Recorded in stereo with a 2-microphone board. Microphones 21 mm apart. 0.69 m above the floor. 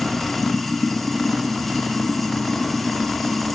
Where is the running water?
10° left (ahead or behind), 0.8 m.